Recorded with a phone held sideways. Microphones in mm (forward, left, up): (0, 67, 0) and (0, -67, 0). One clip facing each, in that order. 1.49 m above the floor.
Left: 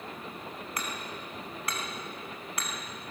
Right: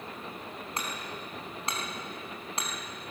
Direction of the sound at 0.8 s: 25° right (ahead or behind).